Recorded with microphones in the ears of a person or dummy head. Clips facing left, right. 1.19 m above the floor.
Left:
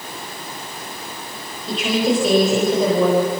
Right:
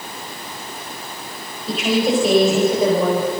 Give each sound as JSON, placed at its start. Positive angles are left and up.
{"t": 1.7, "sound": "a woman speaking", "side_deg": -5, "distance_m": 5.0}